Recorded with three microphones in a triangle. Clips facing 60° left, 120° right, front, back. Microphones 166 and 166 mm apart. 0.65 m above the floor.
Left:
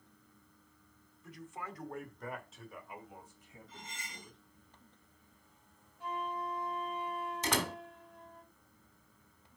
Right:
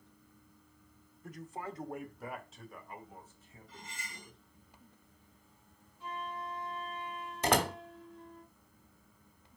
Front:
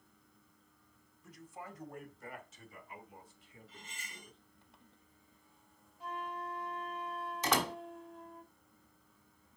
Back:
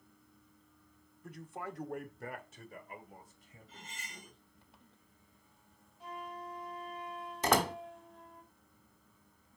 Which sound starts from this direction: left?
A flute, at 6.0 s.